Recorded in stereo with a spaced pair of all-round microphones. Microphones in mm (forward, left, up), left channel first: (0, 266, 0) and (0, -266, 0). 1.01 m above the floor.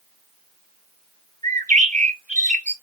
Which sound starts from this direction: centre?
A bird, at 1.4 s.